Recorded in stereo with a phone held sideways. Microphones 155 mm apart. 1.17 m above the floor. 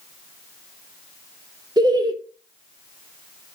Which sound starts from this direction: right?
Laughter, at 1.8 s.